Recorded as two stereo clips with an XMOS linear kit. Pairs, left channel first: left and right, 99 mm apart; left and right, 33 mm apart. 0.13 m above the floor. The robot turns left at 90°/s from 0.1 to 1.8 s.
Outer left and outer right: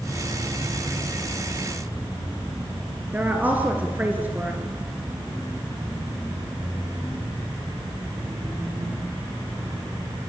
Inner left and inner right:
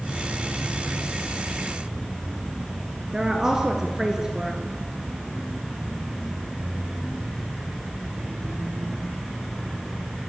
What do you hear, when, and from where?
3.1 s a woman speaking: 15° right (ahead or behind), 2.5 m